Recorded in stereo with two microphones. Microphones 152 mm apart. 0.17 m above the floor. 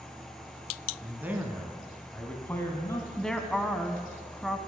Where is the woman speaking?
5° left (ahead or behind), 1.1 m.